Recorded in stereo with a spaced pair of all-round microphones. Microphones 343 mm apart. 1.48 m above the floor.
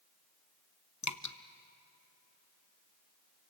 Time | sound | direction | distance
1.0 | dripping | 60° left (ahead or behind) | 0.8 m